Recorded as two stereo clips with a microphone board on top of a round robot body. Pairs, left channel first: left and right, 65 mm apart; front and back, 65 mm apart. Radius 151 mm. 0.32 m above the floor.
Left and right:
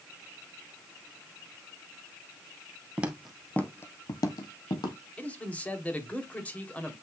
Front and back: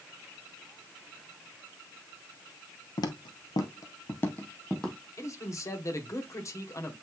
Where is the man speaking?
25° left, 2.5 m.